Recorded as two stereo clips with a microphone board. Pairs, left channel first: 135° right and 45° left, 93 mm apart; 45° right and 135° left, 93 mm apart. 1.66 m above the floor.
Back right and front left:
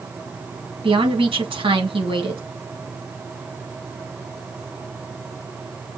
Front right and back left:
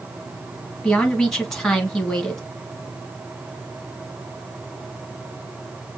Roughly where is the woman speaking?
Ahead left.